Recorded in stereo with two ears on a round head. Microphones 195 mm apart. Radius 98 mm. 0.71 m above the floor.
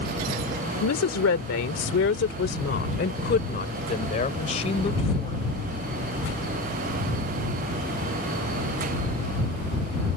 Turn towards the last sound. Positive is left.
turn(degrees=25)  # may be behind; listen again after turning